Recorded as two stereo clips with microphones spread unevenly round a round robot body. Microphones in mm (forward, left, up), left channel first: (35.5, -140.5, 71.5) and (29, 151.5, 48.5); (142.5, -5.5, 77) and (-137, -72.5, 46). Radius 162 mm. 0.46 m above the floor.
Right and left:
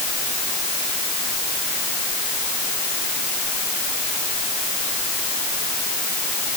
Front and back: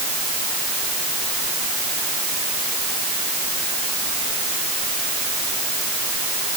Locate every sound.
Only background noise.